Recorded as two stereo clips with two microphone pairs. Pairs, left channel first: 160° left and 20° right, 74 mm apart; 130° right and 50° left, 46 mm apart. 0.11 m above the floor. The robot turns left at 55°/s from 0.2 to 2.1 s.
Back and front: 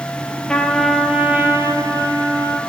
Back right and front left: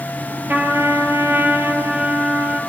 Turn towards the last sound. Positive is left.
turn(degrees=0)